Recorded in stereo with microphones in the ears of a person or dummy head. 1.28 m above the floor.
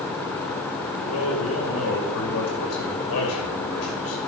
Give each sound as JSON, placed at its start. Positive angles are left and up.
{"t": 1.0, "sound": "a man speaking", "side_deg": 80, "distance_m": 5.5}